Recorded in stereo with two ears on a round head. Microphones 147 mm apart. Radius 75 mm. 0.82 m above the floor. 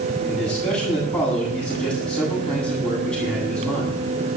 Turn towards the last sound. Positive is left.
turn(degrees=5)  # may be behind; listen again after turning